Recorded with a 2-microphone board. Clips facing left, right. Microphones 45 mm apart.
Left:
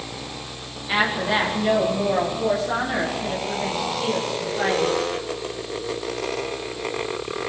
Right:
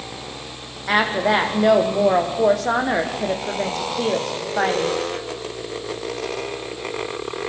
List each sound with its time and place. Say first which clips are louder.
0.9 s a woman speaking: right 3 dB; 55° right (ahead or behind), 5.5 m